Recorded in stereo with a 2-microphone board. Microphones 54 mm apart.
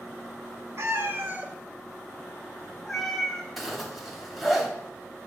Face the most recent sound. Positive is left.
turn(degrees=0)  # may be behind; listen again after turning